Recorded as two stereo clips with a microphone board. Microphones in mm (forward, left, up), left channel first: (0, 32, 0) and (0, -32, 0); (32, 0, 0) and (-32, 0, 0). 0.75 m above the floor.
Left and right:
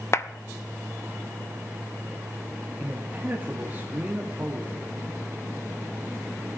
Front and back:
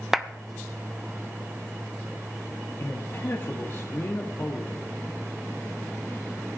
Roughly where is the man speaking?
Ahead right.